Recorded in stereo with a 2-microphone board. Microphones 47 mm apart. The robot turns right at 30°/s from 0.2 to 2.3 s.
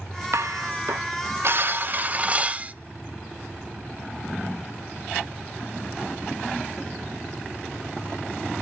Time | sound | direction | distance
0.3 | dishes clattering | 90° right | 0.8 m